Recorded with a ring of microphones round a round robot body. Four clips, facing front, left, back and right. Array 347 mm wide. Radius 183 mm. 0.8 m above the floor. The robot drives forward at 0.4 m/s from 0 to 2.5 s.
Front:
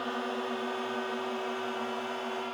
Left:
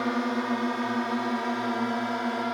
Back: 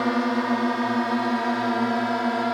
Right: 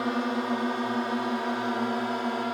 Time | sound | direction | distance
0.0 | a drone | 175° left | ?